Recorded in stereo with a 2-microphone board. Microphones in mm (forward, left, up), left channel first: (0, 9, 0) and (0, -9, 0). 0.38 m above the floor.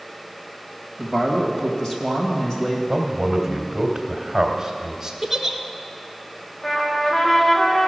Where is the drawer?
I don't hear a drawer.